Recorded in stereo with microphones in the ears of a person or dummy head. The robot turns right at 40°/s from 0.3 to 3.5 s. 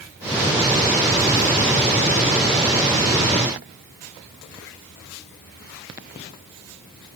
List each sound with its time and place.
Only background noise.